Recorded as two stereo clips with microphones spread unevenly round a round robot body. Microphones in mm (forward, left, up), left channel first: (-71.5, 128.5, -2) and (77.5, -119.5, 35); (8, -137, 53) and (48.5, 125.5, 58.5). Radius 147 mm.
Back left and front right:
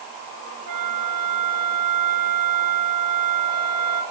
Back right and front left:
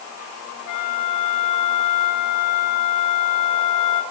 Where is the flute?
95° right, 5 m.